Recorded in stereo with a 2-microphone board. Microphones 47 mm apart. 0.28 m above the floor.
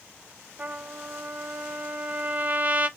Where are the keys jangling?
No keys jangling in this recording.